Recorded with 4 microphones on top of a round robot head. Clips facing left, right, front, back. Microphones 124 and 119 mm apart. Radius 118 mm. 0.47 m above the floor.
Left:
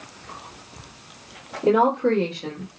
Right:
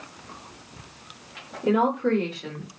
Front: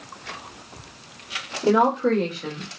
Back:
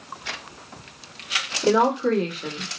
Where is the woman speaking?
90° left, 1.6 m; by 2.7 s 125° left, 1.4 m.